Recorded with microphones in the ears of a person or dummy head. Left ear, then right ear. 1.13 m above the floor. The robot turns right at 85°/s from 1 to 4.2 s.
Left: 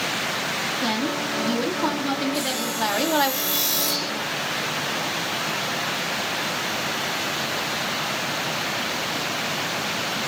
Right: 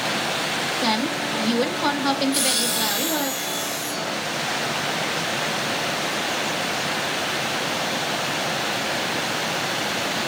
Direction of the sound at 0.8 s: 145° right.